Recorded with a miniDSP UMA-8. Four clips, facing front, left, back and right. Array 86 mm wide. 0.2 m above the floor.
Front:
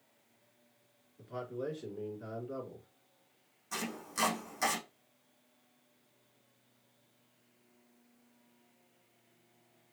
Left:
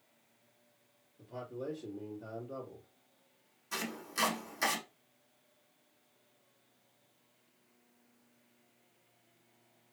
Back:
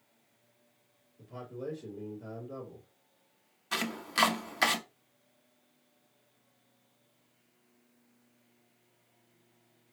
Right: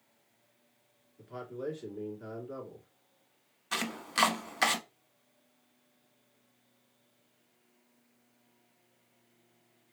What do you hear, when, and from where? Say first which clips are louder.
1.2 s a man speaking: right 2 dB, front 2 dB; 50° right, 3 m
3.7 s chopping: right 5 dB, back 6 dB; 140° right, 0.8 m